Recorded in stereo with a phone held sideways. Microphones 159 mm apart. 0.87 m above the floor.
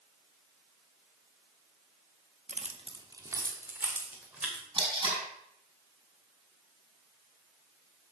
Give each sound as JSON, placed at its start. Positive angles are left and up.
{"t": 2.5, "sound": "keys jangling", "side_deg": -50, "distance_m": 0.9}
{"t": 4.8, "sound": "tape being pulled", "side_deg": -30, "distance_m": 5.0}